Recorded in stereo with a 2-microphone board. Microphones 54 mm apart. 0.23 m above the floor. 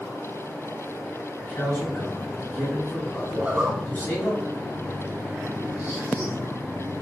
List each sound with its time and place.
1.4 s a man speaking: 35° left (ahead or behind), 1.6 m
3.3 s a zipper: 25° right (ahead or behind), 0.9 m